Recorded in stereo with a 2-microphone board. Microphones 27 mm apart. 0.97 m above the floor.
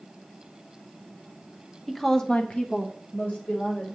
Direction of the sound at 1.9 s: Centre (ahead or behind).